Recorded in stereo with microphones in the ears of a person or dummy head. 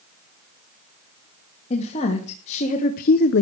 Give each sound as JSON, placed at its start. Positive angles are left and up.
{"t": 1.7, "sound": "a woman speaking", "side_deg": 35, "distance_m": 3.0}